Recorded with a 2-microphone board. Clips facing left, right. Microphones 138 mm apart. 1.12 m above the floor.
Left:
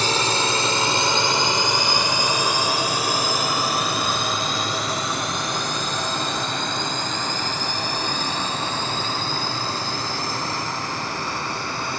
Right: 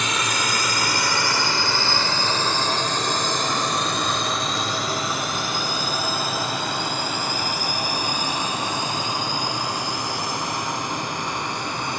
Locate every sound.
0.0 s a drone: 35° left (ahead or behind); by 12.0 s 20° right (ahead or behind)